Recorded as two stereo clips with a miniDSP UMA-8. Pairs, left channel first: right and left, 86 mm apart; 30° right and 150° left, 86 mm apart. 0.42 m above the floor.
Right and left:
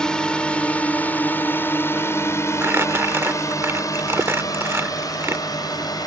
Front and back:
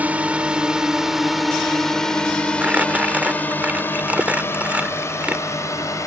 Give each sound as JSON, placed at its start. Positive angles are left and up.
{"t": 0.0, "sound": "a drone", "azimuth_deg": -160}
{"t": 2.6, "sound": "crumpling", "azimuth_deg": 100}